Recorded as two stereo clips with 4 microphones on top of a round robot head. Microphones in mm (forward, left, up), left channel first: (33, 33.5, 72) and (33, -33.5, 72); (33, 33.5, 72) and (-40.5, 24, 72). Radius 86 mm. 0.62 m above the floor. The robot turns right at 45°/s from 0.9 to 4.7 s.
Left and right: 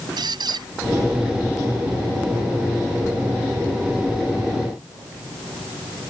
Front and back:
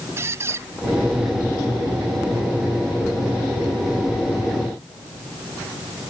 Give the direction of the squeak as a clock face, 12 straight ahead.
4 o'clock.